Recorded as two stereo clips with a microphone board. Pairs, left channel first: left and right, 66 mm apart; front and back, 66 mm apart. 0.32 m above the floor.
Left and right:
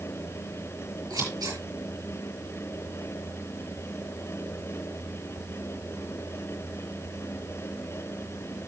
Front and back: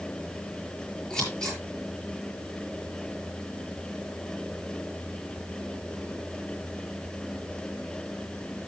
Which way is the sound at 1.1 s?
75° right.